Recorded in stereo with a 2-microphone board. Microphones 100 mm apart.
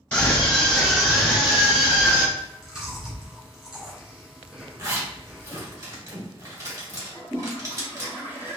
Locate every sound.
0.1 s a scream: 15° left (ahead or behind), 1.2 m; by 2.2 s 15° right (ahead or behind), 2.0 m
2.4 s chewing: 5° right (ahead or behind), 1.8 m
4.8 s a zipper: 30° right (ahead or behind), 1.8 m
7.1 s a toilet flushing: 20° right (ahead or behind), 1.4 m